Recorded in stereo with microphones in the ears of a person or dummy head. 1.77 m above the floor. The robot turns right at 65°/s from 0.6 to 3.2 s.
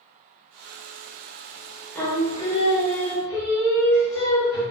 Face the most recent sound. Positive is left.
turn(degrees=95)